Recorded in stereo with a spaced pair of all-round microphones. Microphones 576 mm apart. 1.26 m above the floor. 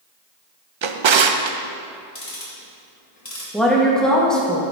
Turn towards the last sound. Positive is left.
turn(degrees=0)  # may be behind; listen again after turning